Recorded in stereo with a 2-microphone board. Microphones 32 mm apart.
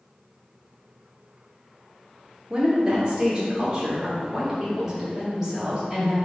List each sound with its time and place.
2.5 s a woman speaking: 25° right (ahead or behind), 1.2 m; by 6.2 s 10° right (ahead or behind), 2 m